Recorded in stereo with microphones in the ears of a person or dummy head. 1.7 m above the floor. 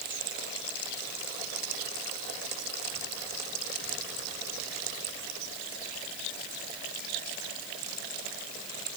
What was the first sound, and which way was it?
Only background noise.